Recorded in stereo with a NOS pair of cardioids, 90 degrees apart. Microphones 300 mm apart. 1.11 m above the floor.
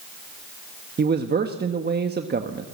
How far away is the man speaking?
About 1.4 m.